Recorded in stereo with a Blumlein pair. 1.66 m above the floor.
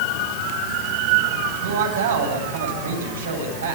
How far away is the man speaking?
About 9.5 m.